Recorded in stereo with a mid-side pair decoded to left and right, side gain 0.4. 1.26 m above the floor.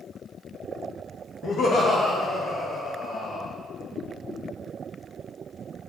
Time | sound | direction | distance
1.4 | laughter | 65° left | 0.8 m